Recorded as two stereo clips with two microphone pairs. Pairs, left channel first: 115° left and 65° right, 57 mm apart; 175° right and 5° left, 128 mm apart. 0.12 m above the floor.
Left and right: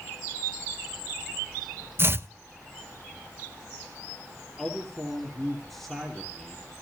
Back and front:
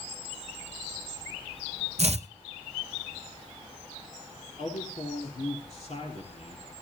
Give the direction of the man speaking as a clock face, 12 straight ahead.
5 o'clock.